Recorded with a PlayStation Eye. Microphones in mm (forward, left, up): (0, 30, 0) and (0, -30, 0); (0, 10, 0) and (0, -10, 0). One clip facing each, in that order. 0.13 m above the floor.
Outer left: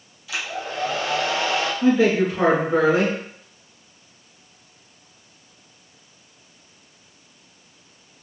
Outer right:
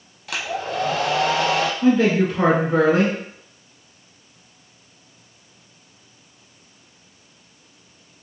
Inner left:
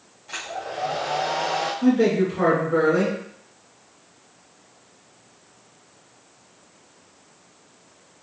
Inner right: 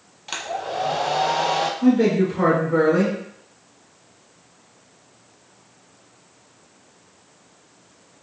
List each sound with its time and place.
0.3 s a hair dryer: 70° right (ahead or behind), 0.6 m
1.8 s a man speaking: 10° left (ahead or behind), 1.4 m